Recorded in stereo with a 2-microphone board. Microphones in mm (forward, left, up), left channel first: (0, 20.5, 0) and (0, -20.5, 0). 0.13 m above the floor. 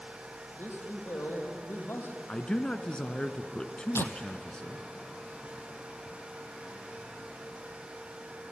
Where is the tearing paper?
80° left, 1.3 m.